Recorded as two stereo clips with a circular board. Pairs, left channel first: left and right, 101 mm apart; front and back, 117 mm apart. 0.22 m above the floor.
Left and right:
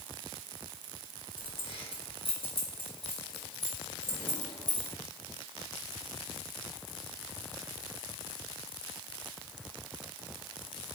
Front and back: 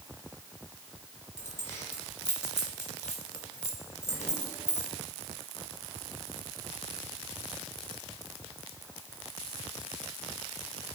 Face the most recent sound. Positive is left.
turn(degrees=65)